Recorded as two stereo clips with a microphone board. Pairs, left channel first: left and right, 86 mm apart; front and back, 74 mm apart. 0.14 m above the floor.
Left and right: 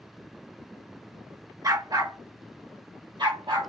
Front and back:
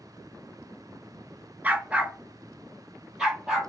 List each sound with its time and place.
1.6 s a dog barking: 120° right, 0.8 m; by 3.7 s 95° right, 1.8 m